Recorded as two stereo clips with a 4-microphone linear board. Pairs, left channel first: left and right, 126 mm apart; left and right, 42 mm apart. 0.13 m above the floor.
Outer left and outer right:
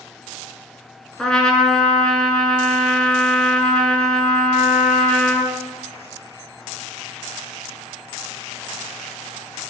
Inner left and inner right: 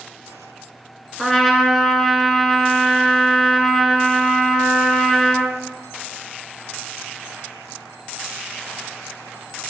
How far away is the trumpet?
About 0.8 m.